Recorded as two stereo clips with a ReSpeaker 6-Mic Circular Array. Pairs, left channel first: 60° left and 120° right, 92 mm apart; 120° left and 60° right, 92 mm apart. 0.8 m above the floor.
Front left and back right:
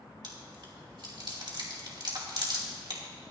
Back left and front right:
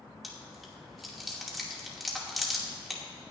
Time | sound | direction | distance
0.2 | chewing | 150° right | 2.5 m